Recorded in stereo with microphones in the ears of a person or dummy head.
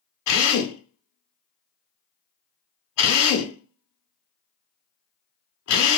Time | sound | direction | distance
0.3 | a drill | 80° left | 1.4 m